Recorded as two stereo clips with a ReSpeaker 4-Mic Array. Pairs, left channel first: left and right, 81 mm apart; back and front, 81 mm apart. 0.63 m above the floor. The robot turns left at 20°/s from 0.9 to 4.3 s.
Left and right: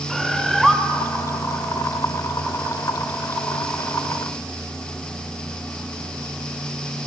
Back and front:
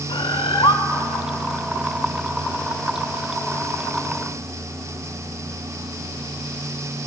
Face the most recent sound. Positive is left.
turn(degrees=110)